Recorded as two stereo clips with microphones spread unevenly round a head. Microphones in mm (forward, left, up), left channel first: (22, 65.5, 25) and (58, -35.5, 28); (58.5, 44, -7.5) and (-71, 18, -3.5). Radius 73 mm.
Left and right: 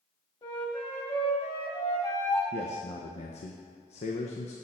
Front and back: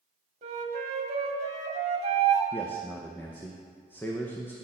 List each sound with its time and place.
0.4 s a flute: 170° left, 1.2 m
2.5 s a man speaking: 85° left, 0.7 m